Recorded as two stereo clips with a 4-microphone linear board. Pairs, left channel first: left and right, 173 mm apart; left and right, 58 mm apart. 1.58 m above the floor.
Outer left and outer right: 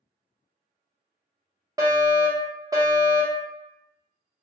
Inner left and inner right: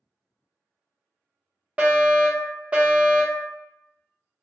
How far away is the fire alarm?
About 0.9 m.